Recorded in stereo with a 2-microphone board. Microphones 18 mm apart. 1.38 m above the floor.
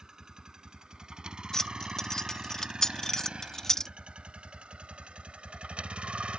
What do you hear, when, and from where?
0.0 s a vehicle: 40° right (ahead or behind); by 6.4 s 75° right (ahead or behind)
1.5 s keys jangling: 30° left (ahead or behind)